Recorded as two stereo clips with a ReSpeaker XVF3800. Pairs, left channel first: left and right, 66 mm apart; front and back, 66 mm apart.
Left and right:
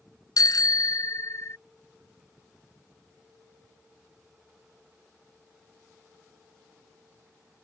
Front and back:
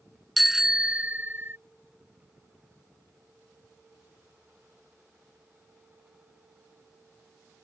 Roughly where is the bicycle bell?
Left.